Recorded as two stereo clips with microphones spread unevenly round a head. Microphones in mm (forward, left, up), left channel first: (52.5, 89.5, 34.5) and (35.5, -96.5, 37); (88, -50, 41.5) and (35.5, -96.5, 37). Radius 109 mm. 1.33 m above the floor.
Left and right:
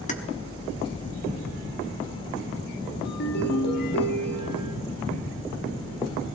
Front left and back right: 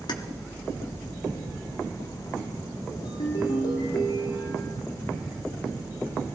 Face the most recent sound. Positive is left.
turn(degrees=55)